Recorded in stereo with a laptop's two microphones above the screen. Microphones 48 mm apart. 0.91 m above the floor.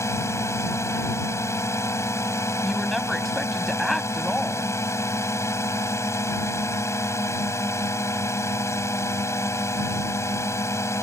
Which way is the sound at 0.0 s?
75° left (ahead or behind).